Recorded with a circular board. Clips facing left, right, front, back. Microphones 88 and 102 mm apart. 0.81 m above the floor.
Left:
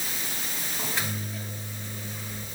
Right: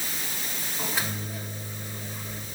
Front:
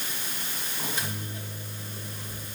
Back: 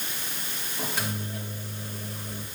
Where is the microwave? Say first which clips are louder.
Right 1 dB, back 3 dB; 175° right, 2.5 m.